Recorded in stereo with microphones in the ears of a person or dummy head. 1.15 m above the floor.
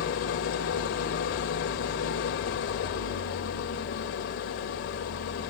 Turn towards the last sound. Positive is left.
turn(degrees=50)  # may be behind; listen again after turning